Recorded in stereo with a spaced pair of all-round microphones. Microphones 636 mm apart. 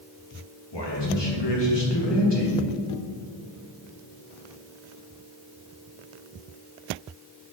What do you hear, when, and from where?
0.7 s a man speaking: 45° left (ahead or behind), 1.4 m